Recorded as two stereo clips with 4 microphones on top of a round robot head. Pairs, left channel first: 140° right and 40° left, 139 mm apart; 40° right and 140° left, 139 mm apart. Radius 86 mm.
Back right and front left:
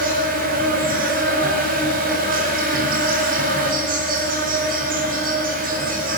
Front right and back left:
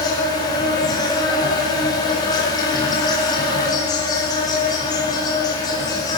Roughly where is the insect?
Ahead.